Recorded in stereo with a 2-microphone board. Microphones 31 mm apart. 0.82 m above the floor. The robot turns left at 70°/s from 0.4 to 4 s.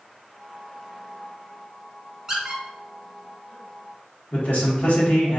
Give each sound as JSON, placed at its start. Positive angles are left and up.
{"t": 2.3, "sound": "a squeak", "side_deg": -20, "distance_m": 1.2}
{"t": 4.3, "sound": "a man speaking", "side_deg": 70, "distance_m": 1.4}